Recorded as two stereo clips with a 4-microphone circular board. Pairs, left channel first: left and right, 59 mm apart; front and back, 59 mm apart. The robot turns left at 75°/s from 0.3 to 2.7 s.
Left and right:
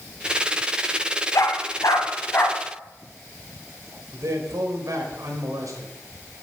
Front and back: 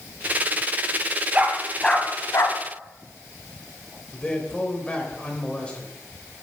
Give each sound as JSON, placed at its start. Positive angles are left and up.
{"t": 1.3, "sound": "a dog barking", "azimuth_deg": 115, "distance_m": 1.5}
{"t": 4.1, "sound": "a man speaking", "azimuth_deg": -70, "distance_m": 2.5}